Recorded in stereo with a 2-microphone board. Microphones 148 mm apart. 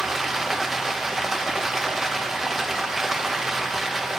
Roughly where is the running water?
Centre.